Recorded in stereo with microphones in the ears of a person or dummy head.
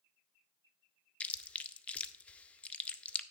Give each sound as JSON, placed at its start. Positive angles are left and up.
{"t": 1.2, "sound": "chewing", "side_deg": 10, "distance_m": 0.6}